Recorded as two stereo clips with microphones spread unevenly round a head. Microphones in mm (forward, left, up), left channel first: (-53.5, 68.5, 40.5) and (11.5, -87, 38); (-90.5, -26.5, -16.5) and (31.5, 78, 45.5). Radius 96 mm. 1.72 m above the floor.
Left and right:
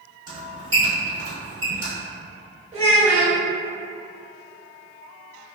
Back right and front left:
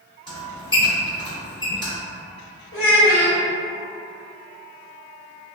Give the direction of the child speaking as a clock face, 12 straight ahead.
4 o'clock.